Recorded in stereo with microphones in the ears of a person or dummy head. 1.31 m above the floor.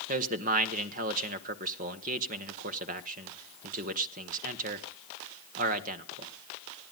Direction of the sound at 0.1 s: 40° right (ahead or behind).